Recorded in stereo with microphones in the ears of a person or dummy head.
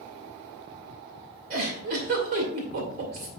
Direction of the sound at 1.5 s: 45° right (ahead or behind).